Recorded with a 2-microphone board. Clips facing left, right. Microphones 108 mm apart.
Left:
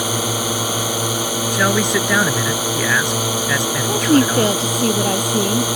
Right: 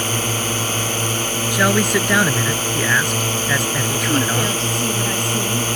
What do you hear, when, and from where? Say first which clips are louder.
0.0 s a drone: left 2 dB; 10° left (ahead or behind)
1.5 s a man speaking: right 1 dB; centre (ahead or behind)
3.9 s a woman speaking: left 8 dB; 45° left (ahead or behind)